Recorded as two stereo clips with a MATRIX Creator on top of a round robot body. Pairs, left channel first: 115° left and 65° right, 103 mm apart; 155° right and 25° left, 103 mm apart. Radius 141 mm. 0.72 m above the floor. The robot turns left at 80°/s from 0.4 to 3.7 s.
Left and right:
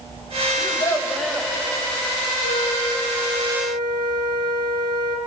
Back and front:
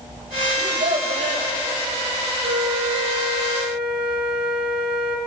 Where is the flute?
85° left, 2.5 m; by 5.2 s 15° right, 2.5 m.